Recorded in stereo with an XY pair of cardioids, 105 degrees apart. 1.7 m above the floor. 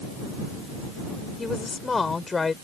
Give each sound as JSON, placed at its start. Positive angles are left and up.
{"t": 1.4, "sound": "a woman speaking", "azimuth_deg": 30}